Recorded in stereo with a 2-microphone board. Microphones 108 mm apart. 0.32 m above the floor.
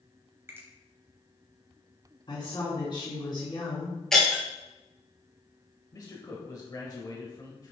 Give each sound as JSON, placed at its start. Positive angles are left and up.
{"t": 0.5, "sound": "a finger snap", "side_deg": -20, "distance_m": 1.4}
{"t": 2.3, "sound": "a woman speaking", "side_deg": 45, "distance_m": 3.0}
{"t": 4.1, "sound": "breaking glass", "side_deg": 5, "distance_m": 2.5}
{"t": 5.9, "sound": "a man speaking", "side_deg": 35, "distance_m": 1.2}